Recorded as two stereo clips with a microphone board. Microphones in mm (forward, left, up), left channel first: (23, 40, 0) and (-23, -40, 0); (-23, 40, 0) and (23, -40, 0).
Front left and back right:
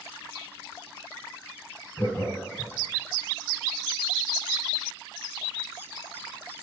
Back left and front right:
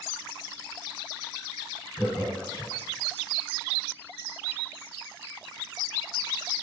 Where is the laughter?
65° left, 1.7 m.